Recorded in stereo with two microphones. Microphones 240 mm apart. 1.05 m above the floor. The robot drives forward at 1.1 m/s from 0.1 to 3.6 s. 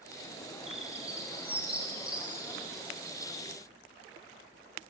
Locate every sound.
0.7 s a bird: 25° right (ahead or behind), 4.5 m; by 2.9 s 15° right (ahead or behind), 7 m